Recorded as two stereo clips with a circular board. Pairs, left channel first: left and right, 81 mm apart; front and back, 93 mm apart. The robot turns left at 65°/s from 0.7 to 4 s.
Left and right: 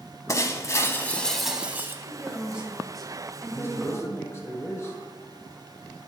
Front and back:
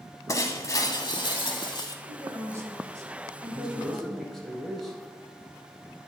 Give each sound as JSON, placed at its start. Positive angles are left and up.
{"t": 0.3, "sound": "breaking glass", "azimuth_deg": 45, "distance_m": 0.8}
{"t": 2.0, "sound": "a woman speaking", "azimuth_deg": -125, "distance_m": 1.4}
{"t": 3.5, "sound": "a man speaking", "azimuth_deg": 115, "distance_m": 1.5}